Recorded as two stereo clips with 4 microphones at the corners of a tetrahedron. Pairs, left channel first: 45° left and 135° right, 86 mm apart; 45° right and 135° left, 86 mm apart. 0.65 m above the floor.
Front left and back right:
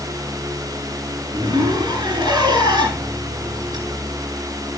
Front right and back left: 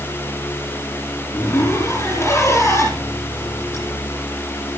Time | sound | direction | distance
1.3 | a zipper | 105° right | 8.5 m